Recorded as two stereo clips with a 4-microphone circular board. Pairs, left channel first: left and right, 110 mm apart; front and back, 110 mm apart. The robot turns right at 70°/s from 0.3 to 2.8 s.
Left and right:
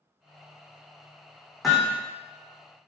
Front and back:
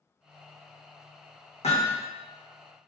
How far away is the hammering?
About 3 m.